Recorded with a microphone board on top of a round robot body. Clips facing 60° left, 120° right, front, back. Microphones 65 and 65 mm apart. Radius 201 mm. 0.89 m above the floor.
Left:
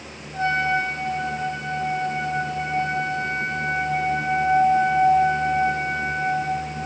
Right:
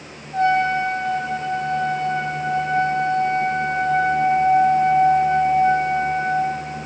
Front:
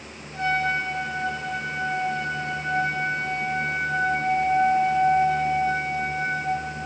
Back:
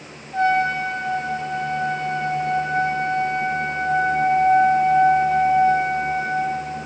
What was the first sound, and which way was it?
A trumpet, 145° right.